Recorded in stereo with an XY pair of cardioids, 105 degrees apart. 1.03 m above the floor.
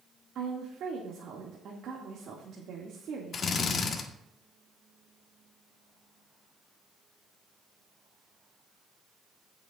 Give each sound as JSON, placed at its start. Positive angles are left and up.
{"t": 0.3, "sound": "a woman speaking", "azimuth_deg": -65, "distance_m": 2.0}
{"t": 3.3, "sound": "a drill", "azimuth_deg": 50, "distance_m": 1.5}